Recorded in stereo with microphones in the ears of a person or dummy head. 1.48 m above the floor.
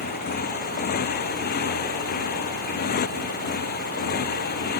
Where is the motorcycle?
50° left (ahead or behind); by 4.8 s 55° left (ahead or behind).